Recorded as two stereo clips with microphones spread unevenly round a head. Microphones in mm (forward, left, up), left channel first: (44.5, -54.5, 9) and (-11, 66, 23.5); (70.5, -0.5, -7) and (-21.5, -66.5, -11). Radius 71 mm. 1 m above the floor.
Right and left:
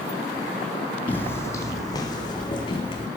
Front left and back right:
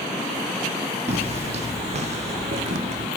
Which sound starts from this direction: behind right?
Footsteps, at 1.1 s.